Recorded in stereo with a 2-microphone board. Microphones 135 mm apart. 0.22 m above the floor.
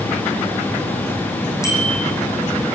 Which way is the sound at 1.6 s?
20° left (ahead or behind).